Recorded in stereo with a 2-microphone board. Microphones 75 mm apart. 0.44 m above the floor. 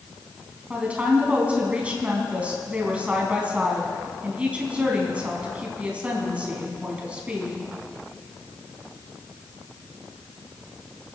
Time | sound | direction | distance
0.7 | a woman speaking | 15° right (ahead or behind) | 3.5 m